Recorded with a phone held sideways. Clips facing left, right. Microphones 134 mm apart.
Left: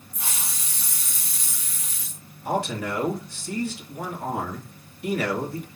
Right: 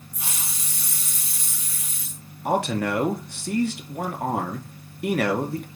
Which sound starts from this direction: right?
A man speaking, at 2.5 s.